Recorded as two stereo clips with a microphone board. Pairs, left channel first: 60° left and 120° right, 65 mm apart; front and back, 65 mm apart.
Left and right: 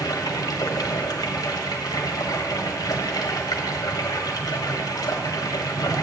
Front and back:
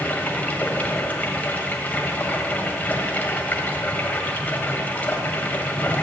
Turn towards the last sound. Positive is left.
turn(degrees=65)